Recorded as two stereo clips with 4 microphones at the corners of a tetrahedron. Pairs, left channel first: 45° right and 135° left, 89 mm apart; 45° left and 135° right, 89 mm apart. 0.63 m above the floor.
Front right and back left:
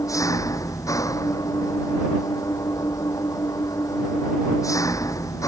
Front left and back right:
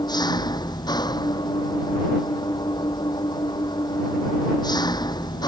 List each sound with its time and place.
0.0 s an engine running: 5° left